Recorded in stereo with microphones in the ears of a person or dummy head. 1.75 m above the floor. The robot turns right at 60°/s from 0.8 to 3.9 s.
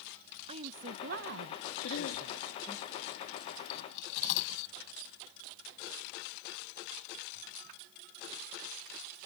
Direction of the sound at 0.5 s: 145° right.